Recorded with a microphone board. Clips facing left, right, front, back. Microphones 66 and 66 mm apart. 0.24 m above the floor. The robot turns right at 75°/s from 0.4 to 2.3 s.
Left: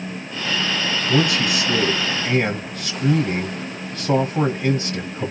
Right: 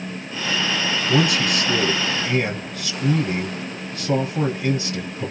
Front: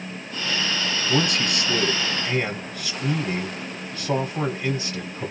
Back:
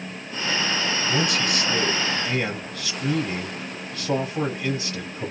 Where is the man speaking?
Straight ahead, 1.0 m; by 5.3 s 95° left, 1.0 m.